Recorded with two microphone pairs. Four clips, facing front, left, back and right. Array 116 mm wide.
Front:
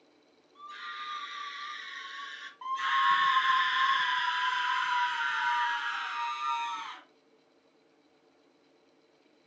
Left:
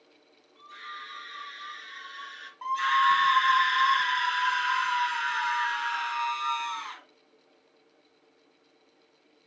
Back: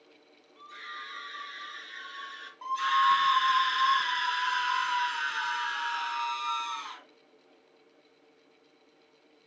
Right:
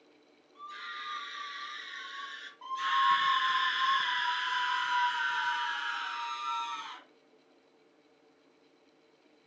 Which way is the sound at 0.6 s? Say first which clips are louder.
Even, front 2 dB; 35° right.